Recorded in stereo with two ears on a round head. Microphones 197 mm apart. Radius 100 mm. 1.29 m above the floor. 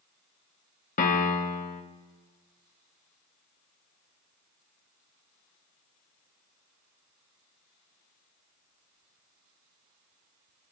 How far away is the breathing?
No breathing in this recording.